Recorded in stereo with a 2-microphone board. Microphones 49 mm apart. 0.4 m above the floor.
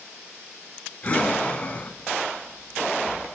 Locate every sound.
1.0 s breathing: 30° left (ahead or behind), 0.9 m